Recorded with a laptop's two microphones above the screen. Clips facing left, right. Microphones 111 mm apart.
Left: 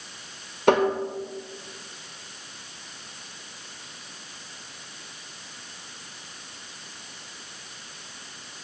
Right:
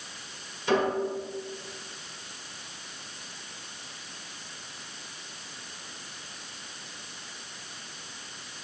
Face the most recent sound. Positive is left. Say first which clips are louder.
# left 6 dB
turn(degrees=65)  # may be behind; listen again after turning